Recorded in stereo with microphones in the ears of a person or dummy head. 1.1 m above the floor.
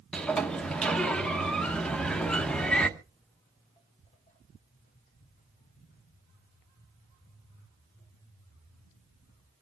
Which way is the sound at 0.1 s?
5° left (ahead or behind).